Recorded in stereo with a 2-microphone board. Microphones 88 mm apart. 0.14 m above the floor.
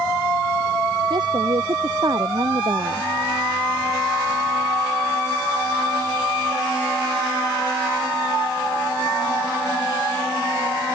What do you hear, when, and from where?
1.1 s a woman speaking: 55° right (ahead or behind)